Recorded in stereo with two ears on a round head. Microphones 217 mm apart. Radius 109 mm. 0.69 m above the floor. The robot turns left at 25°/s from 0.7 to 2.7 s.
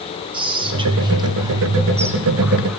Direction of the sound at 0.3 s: 20° right (ahead or behind).